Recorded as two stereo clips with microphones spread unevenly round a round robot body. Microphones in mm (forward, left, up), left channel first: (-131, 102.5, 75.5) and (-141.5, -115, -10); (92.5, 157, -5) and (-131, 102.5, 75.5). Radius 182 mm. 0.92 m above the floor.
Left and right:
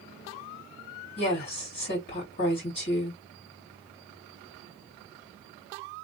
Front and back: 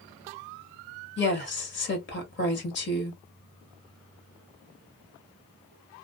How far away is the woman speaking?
About 1.4 m.